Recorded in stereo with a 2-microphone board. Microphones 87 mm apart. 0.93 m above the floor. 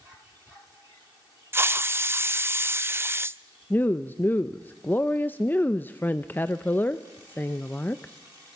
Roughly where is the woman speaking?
Left.